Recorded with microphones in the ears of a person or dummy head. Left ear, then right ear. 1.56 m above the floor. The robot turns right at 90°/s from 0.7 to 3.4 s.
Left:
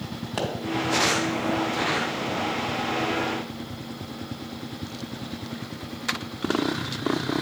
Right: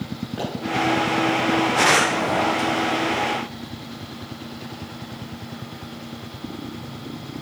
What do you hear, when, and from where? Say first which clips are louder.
0.4 s a pop: left 1 dB; 50° left (ahead or behind), 2.5 m